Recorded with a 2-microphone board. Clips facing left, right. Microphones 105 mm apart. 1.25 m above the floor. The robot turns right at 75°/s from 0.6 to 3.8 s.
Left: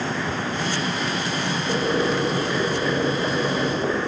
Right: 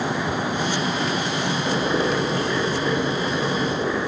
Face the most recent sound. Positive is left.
turn(degrees=115)